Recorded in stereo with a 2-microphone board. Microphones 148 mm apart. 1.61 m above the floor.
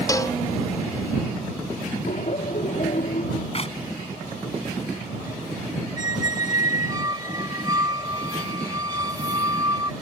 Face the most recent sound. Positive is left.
turn(degrees=-25)  # may be behind; listen again after turning